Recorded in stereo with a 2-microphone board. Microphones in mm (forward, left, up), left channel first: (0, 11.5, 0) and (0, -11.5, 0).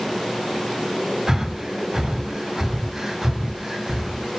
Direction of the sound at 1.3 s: 30° right (ahead or behind).